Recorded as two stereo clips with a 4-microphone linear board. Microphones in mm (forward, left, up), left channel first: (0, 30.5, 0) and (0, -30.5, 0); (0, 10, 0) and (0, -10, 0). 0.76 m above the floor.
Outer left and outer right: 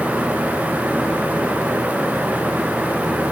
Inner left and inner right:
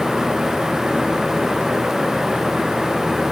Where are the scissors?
I don't hear scissors.